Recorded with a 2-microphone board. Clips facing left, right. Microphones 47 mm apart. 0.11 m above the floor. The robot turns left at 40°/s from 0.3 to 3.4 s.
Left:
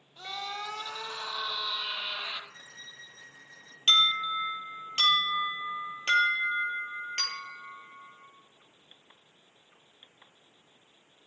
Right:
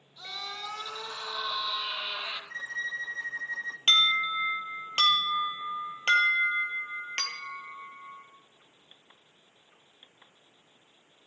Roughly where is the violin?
Ahead right.